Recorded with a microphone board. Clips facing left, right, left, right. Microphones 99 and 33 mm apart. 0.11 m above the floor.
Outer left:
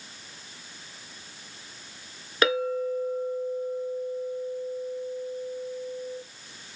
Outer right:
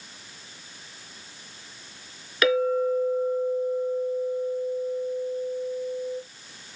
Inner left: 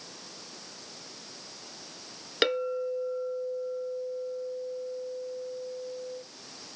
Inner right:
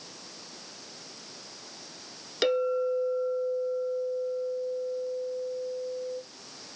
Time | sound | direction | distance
2.4 | a clink | 30° left (ahead or behind) | 0.8 m